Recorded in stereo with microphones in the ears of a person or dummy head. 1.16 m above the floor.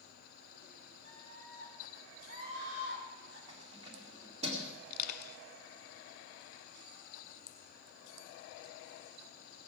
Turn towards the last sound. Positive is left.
turn(degrees=40)  # may be behind; listen again after turning